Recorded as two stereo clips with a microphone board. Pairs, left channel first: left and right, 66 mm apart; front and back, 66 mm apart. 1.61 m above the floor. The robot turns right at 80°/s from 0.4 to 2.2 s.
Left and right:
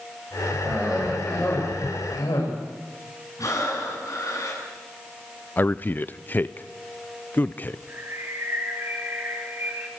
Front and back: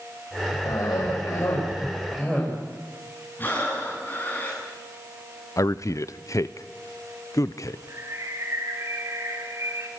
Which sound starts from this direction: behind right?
A bird, at 7.9 s.